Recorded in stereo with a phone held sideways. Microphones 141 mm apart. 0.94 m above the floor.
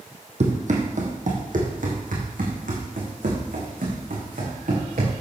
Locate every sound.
0.4 s running footsteps: 55° right (ahead or behind), 2 m; by 5.1 s 80° right, 5.5 m